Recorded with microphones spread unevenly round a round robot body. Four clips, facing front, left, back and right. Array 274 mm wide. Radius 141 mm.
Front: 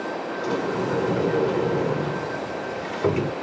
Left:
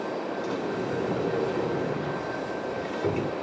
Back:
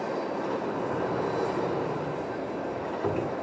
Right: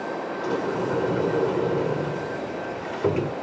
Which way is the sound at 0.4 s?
45° right.